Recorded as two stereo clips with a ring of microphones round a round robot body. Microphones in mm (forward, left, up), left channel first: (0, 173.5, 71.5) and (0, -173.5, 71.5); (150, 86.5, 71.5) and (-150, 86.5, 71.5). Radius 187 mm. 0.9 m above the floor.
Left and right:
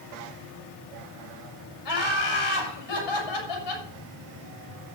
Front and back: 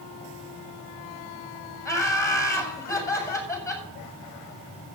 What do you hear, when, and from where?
1.9 s laughter: 80° left, 7 m